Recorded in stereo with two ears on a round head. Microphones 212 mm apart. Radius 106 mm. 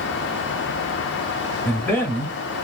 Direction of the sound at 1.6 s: 10° left (ahead or behind).